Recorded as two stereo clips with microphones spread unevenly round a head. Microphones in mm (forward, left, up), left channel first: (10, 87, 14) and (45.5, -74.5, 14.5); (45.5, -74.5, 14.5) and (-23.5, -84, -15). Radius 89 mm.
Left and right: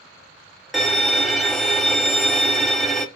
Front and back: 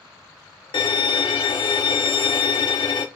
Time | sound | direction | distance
0.7 | a violin | 10° left | 0.5 m